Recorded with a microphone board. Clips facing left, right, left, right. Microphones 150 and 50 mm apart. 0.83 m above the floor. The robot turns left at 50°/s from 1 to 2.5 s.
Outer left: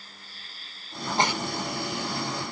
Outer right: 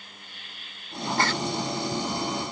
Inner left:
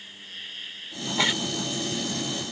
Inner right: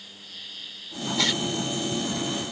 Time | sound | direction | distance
0.0 | an insect | 145° left | ?
1.2 | a giggle | 20° left (ahead or behind) | ?